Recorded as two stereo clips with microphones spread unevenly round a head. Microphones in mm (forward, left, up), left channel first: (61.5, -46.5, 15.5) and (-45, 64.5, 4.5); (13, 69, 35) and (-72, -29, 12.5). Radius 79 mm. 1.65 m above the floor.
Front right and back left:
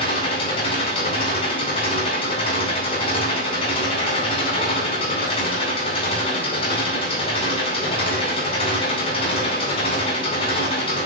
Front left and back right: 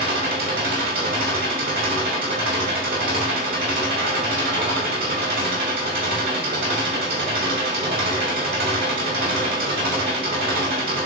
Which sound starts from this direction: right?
An engine running, at 0.0 s.